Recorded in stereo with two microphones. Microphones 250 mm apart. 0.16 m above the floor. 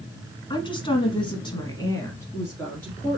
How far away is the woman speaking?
About 1.6 m.